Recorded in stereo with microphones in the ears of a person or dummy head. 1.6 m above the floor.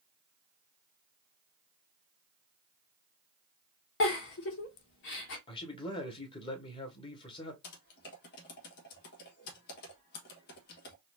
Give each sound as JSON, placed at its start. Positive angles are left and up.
{"t": 4.0, "sound": "a giggle", "side_deg": 55, "distance_m": 1.2}
{"t": 5.5, "sound": "a man speaking", "side_deg": 25, "distance_m": 1.7}
{"t": 7.6, "sound": "typing on a keyboard", "side_deg": 55, "distance_m": 1.4}